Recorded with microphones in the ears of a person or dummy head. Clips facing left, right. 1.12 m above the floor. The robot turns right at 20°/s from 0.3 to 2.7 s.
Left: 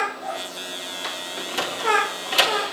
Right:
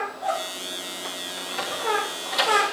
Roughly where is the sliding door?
Left.